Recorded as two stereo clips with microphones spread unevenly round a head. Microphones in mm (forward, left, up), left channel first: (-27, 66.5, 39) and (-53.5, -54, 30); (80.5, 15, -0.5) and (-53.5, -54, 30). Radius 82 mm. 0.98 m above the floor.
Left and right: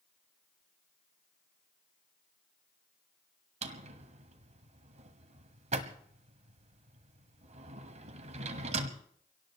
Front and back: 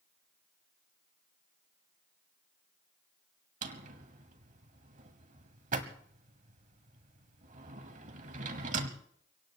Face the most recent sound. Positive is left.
turn(degrees=-130)